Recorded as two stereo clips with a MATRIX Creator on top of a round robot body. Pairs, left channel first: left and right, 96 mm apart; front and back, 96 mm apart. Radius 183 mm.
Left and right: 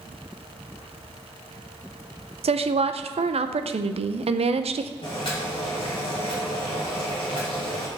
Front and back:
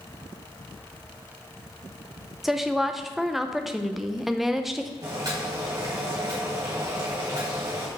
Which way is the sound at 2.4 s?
90° right.